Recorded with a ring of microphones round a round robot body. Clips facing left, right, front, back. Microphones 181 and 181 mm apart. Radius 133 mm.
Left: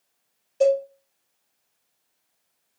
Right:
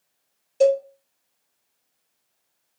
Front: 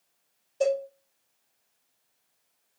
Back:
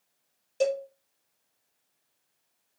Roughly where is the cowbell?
Behind right.